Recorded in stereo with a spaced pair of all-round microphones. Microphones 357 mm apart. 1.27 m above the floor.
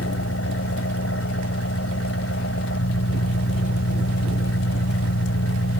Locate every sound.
0.0 s an engine running: 40° left (ahead or behind)